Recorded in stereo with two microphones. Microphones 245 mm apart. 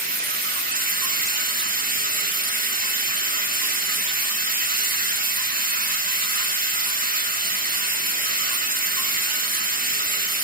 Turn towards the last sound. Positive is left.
turn(degrees=-35)  # may be behind; listen again after turning